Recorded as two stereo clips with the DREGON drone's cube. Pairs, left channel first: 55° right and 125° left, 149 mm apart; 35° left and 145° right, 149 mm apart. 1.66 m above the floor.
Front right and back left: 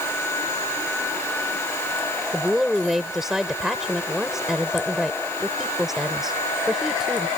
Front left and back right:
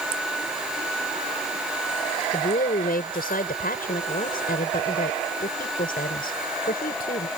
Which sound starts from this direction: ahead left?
A woman speaking, at 2.3 s.